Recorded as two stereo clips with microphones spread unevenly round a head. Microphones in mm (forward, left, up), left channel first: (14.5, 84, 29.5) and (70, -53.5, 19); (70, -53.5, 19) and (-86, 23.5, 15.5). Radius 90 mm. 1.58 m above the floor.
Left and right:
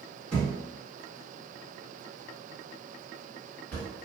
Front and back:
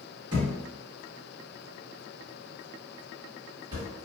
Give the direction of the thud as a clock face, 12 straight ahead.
6 o'clock.